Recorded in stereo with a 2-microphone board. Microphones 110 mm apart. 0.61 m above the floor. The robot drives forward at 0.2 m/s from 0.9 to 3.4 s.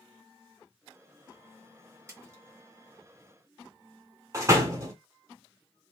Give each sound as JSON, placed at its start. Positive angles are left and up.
{"t": 2.1, "sound": "a splash", "side_deg": -30, "distance_m": 1.2}
{"t": 4.3, "sound": "a door slam", "side_deg": -30, "distance_m": 1.0}